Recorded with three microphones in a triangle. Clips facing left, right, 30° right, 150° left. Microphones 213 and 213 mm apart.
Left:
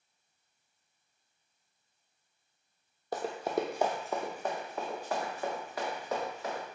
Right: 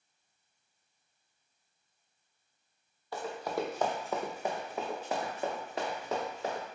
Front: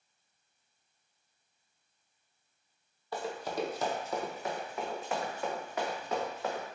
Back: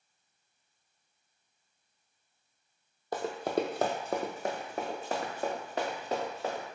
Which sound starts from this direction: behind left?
Running footsteps, at 3.1 s.